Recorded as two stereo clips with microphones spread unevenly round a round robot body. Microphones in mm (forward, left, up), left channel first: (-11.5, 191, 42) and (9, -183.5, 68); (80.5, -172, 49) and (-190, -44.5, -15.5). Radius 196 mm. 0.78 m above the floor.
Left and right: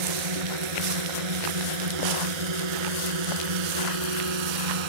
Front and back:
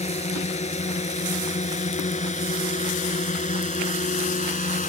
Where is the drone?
90° right.